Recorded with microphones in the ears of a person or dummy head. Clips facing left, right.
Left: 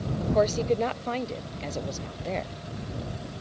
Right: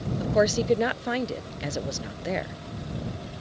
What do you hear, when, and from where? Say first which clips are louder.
0.2 s a woman speaking: right 1 dB; 15° right (ahead or behind)